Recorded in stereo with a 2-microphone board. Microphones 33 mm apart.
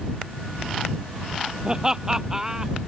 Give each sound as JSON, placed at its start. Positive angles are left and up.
{"t": 1.6, "sound": "laughter", "side_deg": -25}